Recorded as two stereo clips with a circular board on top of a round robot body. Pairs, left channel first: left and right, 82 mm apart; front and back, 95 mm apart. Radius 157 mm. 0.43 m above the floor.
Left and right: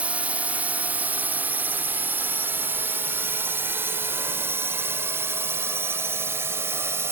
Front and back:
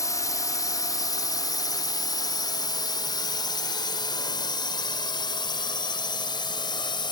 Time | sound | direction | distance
0.0 | a drone | 25° right | ?